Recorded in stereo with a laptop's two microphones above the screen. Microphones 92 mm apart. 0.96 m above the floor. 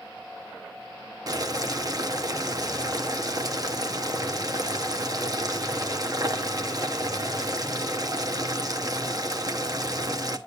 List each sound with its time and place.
1.3 s boiling: 45° right (ahead or behind), 0.7 m